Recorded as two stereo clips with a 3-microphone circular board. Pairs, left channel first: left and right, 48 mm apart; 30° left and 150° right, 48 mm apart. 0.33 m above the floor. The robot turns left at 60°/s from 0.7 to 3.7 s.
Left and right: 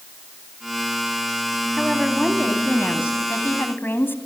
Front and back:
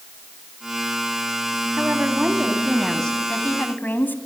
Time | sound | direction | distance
1.8 | a woman speaking | straight behind | 2 m